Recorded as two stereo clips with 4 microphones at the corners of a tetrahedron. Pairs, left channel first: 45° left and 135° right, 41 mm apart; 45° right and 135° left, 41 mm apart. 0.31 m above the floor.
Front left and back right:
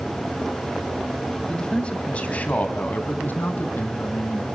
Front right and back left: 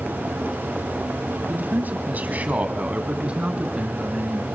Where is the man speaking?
110° left, 1.9 m; by 4.5 s 65° left, 3 m.